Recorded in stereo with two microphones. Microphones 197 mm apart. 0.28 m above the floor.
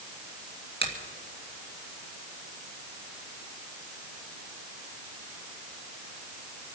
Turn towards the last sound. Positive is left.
turn(degrees=-60)  # may be behind; listen again after turning